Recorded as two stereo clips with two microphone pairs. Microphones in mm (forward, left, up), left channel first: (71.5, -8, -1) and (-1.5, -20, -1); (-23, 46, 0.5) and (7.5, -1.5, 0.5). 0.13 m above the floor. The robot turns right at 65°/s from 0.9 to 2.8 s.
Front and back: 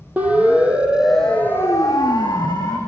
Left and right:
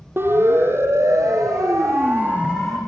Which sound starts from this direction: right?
A siren, at 0.2 s.